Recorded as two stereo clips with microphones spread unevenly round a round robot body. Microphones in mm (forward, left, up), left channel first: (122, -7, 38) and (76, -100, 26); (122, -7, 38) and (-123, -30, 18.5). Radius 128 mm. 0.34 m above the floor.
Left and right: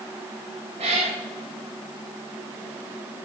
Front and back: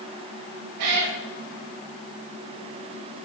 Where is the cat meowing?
175° right, 8 m.